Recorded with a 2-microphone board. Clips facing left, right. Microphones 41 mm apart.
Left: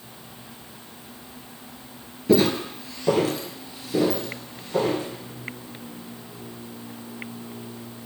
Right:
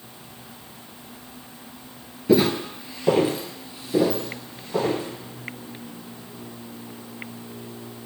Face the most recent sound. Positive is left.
turn(degrees=-15)  # may be behind; listen again after turning